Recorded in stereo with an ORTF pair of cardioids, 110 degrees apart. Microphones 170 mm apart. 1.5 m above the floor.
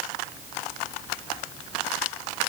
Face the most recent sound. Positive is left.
No sound to turn to.